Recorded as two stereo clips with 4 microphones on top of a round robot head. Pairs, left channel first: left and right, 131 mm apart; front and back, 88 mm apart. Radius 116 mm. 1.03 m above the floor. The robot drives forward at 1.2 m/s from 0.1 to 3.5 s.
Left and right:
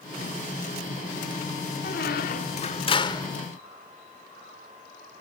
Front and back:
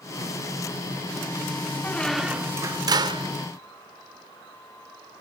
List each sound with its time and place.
1.8 s a squeak: 65° left, 1.0 m; by 3.3 s 150° left, 1.6 m